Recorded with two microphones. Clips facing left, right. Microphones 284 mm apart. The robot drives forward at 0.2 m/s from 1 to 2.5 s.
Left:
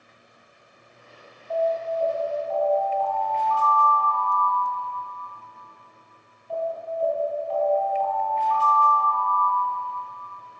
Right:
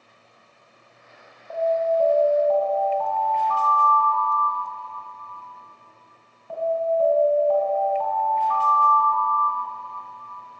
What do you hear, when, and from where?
1.5 s an alarm: 75° right (ahead or behind), 3.5 m; by 9.8 s 70° right (ahead or behind), 3.5 m